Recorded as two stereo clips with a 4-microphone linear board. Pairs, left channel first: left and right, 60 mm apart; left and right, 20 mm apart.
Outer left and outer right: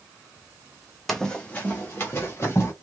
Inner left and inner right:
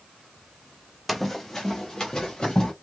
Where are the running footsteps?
5° left (ahead or behind), 0.7 m; by 2.7 s 40° left (ahead or behind), 1.8 m.